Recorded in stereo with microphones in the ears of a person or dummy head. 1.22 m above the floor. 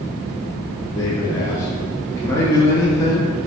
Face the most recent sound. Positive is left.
turn(degrees=15)  # may be behind; listen again after turning